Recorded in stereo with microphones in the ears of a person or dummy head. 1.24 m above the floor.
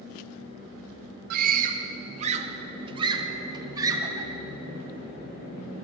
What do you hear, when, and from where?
1.3 s a scream: 60° right (ahead or behind), 1.9 m; by 4.3 s 25° right (ahead or behind), 3 m